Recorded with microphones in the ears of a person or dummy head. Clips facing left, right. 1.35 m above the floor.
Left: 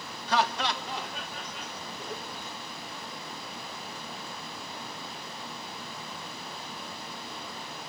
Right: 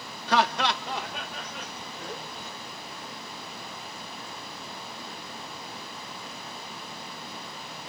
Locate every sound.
0.3 s laughter: 55° right (ahead or behind), 0.6 m